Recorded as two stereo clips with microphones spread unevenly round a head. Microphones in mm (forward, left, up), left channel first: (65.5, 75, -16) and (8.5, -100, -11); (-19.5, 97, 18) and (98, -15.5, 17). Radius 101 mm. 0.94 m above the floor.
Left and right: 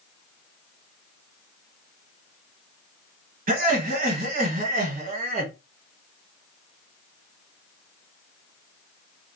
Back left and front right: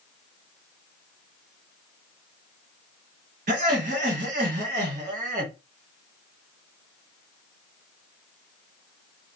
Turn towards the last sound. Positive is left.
turn(degrees=-75)